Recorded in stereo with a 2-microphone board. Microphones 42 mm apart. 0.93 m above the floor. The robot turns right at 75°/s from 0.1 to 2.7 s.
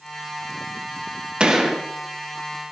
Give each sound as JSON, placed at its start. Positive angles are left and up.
{"t": 1.4, "sound": "a gunshot", "azimuth_deg": -25, "distance_m": 1.2}